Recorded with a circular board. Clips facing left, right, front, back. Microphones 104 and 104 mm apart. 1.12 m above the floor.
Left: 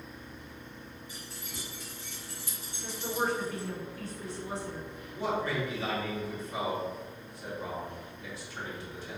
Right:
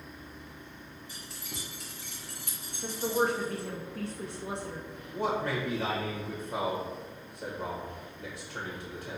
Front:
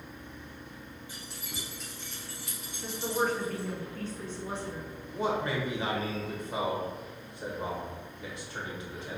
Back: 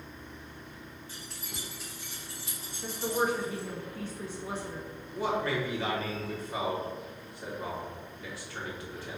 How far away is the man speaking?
About 1.2 m.